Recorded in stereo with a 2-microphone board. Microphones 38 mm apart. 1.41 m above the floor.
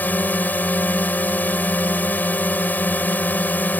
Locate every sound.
0.0 s a drone: 50° left (ahead or behind)